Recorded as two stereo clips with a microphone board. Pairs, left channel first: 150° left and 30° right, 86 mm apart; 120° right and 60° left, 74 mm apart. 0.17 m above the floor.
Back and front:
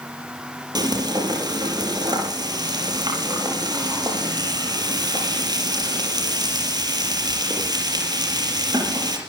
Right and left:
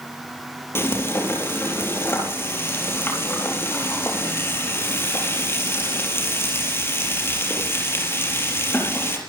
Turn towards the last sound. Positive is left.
turn(degrees=-65)